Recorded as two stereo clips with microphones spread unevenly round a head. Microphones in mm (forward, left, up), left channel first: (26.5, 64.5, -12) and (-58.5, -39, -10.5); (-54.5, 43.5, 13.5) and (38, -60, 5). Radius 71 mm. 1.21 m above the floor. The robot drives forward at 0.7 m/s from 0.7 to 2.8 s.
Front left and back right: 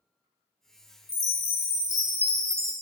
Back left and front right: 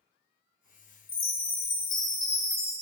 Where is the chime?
85° left, 1.3 m; by 2.7 s 135° left, 1.7 m.